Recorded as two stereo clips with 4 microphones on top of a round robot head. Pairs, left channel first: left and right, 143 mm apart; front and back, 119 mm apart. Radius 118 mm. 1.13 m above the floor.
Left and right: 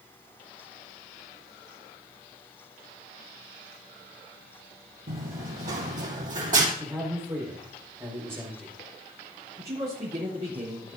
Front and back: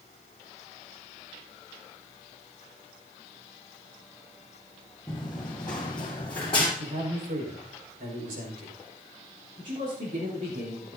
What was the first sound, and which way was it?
Running footsteps, 80° right.